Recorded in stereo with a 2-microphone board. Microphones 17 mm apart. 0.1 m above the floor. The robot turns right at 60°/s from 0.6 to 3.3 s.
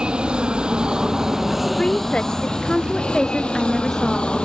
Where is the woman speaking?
75° left; by 4.3 s 165° left.